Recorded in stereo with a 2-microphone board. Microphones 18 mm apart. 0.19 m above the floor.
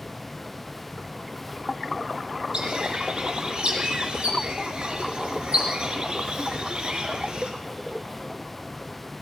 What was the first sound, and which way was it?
A bird, 55° right (ahead or behind).